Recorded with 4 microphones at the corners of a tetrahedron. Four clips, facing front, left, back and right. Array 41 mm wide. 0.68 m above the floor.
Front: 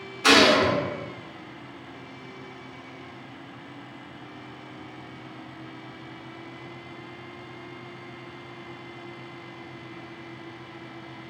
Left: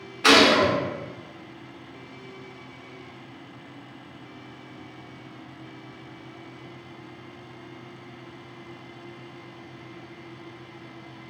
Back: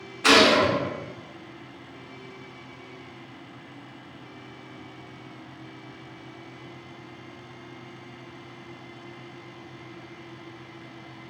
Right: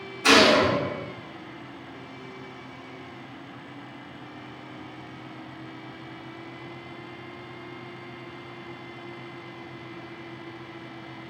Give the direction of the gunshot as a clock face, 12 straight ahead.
8 o'clock.